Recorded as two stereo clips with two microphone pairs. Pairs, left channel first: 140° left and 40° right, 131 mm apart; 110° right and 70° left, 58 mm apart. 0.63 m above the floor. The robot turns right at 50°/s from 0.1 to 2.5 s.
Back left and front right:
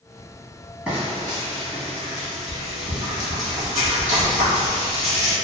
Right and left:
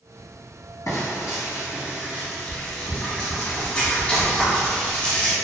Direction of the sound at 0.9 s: 125° right.